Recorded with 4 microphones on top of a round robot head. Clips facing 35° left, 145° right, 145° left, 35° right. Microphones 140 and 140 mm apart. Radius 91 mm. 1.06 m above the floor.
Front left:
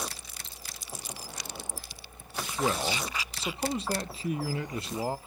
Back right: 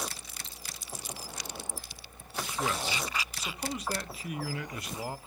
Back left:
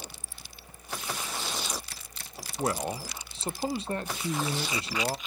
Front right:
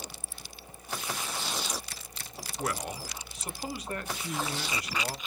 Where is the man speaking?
90° left, 0.6 m.